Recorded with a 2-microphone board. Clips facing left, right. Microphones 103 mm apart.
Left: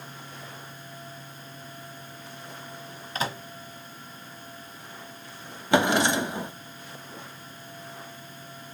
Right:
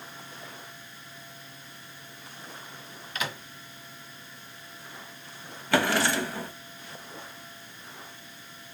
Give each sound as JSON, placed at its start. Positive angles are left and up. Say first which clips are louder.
{"t": 3.1, "sound": "a microwave", "louder": "left 4 dB", "side_deg": 35, "distance_m": 1.2}
{"t": 5.7, "sound": "a drawer", "louder": "left 3 dB", "side_deg": 20, "distance_m": 0.5}